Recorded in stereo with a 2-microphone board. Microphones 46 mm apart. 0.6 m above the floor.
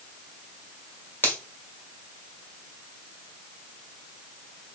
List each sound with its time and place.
1.2 s a finger snap: 45° left (ahead or behind), 1.6 m